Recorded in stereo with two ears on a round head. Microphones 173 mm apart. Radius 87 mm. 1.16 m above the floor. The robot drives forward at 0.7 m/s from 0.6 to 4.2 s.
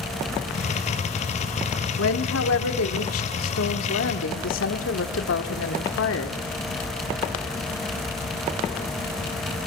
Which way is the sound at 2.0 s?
70° left (ahead or behind).